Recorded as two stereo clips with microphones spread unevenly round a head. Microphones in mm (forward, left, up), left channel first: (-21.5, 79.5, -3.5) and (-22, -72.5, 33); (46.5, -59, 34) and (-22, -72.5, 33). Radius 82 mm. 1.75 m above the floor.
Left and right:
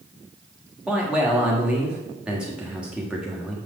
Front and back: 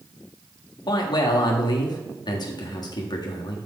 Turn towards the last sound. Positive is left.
turn(degrees=-5)